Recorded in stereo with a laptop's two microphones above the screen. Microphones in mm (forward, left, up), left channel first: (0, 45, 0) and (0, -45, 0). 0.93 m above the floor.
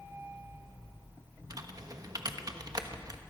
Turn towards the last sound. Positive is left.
turn(degrees=-45)  # may be behind; listen again after turning